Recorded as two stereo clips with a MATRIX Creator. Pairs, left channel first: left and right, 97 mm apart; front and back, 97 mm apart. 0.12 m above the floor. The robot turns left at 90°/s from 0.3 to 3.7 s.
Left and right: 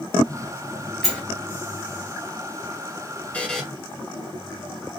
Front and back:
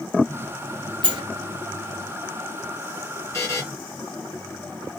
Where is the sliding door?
175° left, 1.0 m; by 1.2 s 160° left, 1.0 m.